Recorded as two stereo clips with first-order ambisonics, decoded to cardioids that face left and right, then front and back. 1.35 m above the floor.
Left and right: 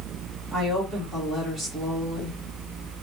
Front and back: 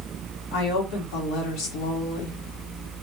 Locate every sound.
0.5 s a woman speaking: 5° right, 1.4 m